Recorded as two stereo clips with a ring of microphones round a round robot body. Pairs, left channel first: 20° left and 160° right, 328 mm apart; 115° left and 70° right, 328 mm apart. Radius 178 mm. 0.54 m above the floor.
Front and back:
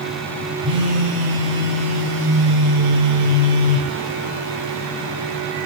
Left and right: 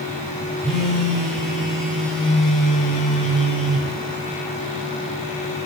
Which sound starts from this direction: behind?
A phone buzzing, at 0.6 s.